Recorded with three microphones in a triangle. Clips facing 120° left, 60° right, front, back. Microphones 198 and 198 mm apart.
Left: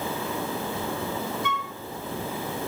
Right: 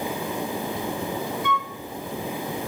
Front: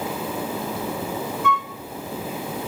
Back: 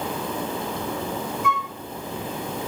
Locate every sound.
1.4 s a flute: 90° right, 3.5 m